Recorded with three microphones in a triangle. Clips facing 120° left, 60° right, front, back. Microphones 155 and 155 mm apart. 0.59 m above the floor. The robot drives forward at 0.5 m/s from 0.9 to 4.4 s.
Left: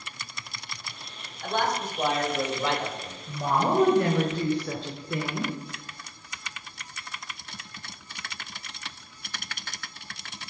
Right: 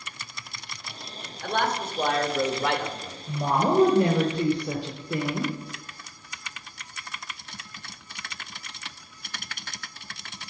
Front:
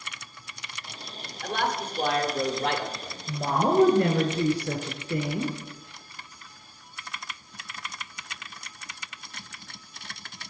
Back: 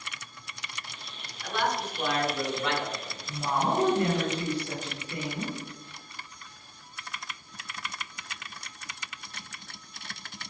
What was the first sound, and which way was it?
A man speaking, 25° right.